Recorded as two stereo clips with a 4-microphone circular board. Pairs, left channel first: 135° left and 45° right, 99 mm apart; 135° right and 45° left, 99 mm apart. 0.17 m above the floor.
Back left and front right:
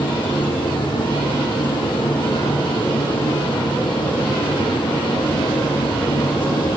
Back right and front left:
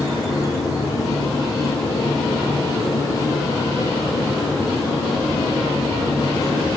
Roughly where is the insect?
Behind.